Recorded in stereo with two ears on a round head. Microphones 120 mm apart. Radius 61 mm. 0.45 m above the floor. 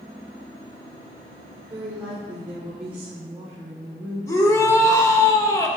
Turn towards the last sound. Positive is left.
turn(degrees=20)  # may be behind; listen again after turning